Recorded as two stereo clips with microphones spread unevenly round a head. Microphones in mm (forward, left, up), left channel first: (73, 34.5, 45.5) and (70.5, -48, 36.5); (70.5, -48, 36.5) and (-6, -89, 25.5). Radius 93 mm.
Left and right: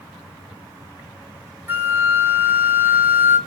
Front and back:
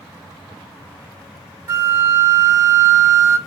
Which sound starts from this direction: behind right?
A flute, at 1.7 s.